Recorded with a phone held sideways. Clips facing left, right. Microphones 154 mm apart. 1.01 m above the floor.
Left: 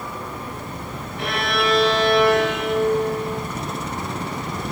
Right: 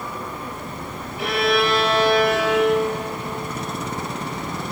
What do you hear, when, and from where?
1.2 s a violin: centre (ahead or behind), 4.5 m